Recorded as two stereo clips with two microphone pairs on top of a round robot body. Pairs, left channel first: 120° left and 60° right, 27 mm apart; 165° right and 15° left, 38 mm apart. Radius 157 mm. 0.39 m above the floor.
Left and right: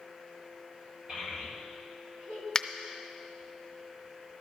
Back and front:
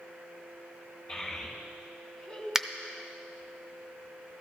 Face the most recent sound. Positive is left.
turn(degrees=70)